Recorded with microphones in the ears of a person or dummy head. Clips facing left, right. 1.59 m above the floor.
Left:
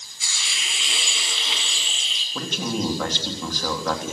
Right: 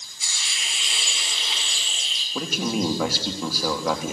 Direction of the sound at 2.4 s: 10° right (ahead or behind).